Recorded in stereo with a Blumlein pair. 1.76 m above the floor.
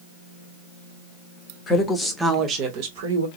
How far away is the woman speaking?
About 1.2 m.